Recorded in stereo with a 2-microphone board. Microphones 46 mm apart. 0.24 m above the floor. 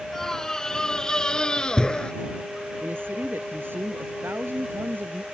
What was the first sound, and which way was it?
A scream, 10° left (ahead or behind).